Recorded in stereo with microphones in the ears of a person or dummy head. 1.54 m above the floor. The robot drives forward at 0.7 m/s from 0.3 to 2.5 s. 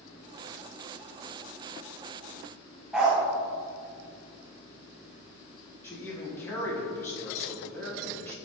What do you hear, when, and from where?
2.9 s a dog barking: 5° right (ahead or behind), 1.0 m
5.8 s a man speaking: 10° left (ahead or behind), 1.7 m